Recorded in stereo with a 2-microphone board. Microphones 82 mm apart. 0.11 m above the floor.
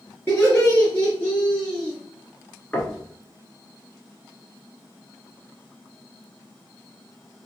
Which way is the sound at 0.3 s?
25° left (ahead or behind).